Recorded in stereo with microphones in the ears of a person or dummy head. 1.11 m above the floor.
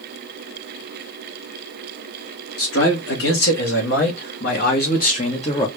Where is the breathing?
I don't hear breathing.